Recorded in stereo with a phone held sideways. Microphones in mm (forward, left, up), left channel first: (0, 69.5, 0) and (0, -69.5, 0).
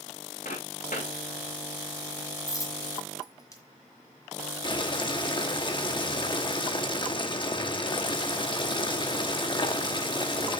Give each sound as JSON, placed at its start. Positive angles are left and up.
{"t": 0.5, "sound": "footsteps", "side_deg": 75, "distance_m": 5.5}
{"t": 2.5, "sound": "a dropped coin", "side_deg": 25, "distance_m": 1.8}
{"t": 4.6, "sound": "boiling", "side_deg": 35, "distance_m": 1.0}